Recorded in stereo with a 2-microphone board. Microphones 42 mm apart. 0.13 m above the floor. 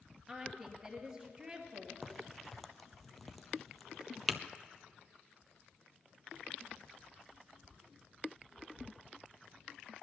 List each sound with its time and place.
0.3 s a woman speaking: 15° right (ahead or behind), 2.5 m
2.0 s a crack: 5° left (ahead or behind), 0.7 m